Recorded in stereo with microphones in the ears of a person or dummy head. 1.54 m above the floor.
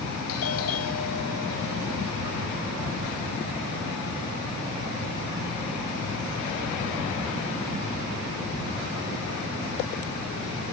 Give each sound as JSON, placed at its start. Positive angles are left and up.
{"t": 0.3, "sound": "a doorbell", "side_deg": 80}